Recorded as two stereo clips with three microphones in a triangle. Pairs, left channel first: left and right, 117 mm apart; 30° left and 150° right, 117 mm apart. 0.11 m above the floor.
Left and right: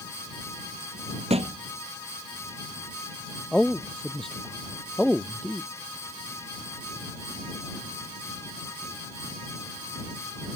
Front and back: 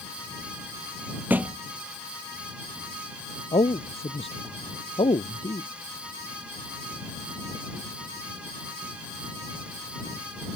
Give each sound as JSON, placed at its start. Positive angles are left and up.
{"t": 1.3, "sound": "a thud", "azimuth_deg": -75}
{"t": 3.5, "sound": "a man speaking", "azimuth_deg": 5}